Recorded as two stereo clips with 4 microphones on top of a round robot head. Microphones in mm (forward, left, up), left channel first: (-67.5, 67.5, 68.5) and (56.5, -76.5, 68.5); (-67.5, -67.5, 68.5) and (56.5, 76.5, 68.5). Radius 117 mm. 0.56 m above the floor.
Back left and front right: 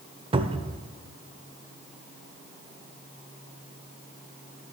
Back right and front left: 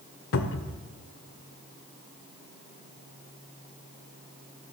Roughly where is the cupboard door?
Right.